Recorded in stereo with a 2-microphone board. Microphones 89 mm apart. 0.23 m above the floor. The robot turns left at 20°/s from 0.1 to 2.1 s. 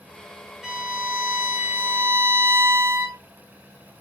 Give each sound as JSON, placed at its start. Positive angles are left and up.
{"t": 0.6, "sound": "a violin", "side_deg": -5, "distance_m": 1.5}